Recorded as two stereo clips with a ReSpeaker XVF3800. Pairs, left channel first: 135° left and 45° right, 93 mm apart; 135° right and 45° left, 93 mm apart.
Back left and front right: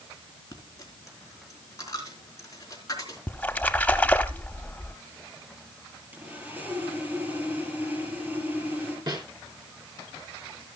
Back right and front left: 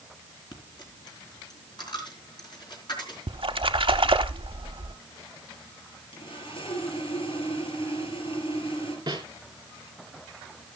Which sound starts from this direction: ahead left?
A splash, at 3.3 s.